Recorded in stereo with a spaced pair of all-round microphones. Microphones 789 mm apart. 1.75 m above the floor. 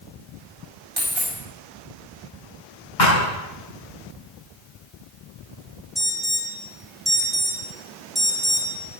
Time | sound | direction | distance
1.0 | a dropped coin | 30° right (ahead or behind) | 5 m
3.0 | a thud | 70° left (ahead or behind) | 6 m
6.0 | an alarm | centre (ahead or behind) | 2 m